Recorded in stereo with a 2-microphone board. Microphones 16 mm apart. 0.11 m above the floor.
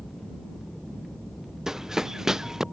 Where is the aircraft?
30° left (ahead or behind).